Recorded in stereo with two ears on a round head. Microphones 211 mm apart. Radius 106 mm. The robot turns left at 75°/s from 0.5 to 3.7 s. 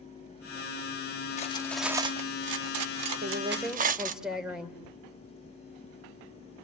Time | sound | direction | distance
1.4 | cutlery clinking | 30° left (ahead or behind) | 0.9 m
3.2 | a woman speaking | 140° right | 3 m